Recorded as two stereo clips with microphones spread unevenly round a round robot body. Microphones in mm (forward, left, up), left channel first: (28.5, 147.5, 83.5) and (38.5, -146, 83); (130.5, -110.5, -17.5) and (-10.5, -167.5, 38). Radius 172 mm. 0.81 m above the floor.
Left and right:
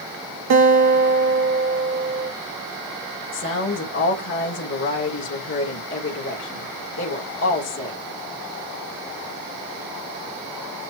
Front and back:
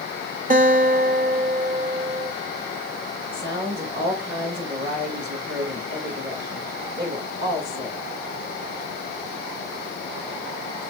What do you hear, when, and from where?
0.5 s a guitar: 120° right, 3 m
3.3 s a woman speaking: 145° left, 2 m